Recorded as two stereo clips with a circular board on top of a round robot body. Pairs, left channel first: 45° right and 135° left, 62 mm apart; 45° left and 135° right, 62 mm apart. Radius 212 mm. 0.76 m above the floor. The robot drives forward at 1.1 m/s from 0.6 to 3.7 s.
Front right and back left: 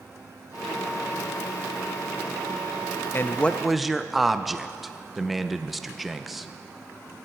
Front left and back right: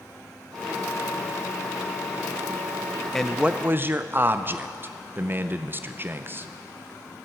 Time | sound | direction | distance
3.1 | a man speaking | 30° right | 0.8 m